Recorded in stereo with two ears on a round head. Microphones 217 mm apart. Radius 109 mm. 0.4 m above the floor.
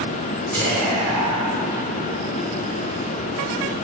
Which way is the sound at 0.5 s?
5° left (ahead or behind).